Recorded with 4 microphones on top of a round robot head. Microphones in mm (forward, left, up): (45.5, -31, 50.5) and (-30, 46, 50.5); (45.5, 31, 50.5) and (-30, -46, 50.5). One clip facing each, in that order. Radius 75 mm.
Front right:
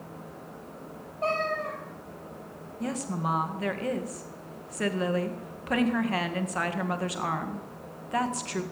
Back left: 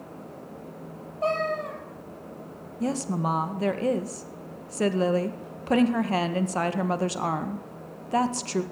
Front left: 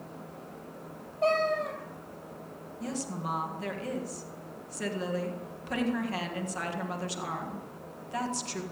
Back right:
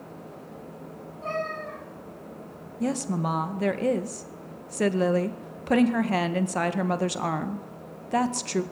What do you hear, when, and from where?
1.2 s a cat meowing: 65° left, 4.5 m
2.8 s a woman speaking: 165° right, 1.8 m